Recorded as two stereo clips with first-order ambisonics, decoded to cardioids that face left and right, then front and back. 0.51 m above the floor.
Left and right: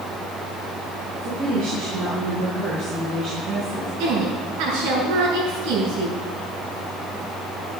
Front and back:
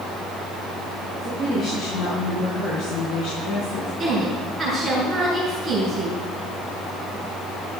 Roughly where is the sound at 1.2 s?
Ahead right.